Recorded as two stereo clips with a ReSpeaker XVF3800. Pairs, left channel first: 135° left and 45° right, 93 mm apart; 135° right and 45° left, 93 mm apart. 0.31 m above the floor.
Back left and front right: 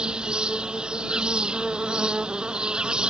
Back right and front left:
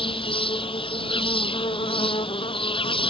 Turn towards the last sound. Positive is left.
turn(degrees=-125)